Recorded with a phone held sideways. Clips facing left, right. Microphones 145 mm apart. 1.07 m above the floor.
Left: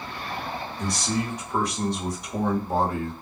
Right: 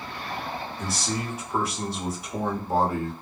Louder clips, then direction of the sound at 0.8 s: Left 5 dB; 5° right (ahead or behind).